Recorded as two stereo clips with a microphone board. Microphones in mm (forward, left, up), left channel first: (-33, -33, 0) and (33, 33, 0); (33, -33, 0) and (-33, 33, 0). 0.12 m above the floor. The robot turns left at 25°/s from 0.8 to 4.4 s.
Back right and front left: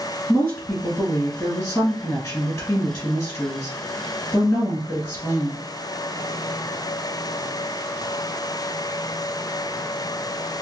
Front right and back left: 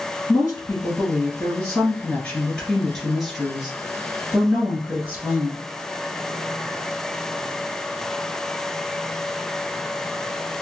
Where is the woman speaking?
70° right, 1.4 m; by 5.6 s 160° right, 1.4 m.